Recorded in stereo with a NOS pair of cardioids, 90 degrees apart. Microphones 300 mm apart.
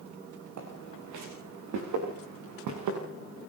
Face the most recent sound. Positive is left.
turn(degrees=-75)